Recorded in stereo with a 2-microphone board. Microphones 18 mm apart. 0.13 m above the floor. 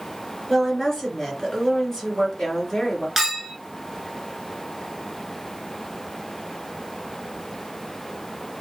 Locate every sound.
0.5 s a woman speaking: 30° left (ahead or behind), 2 m
3.2 s a clink: 10° right (ahead or behind), 0.9 m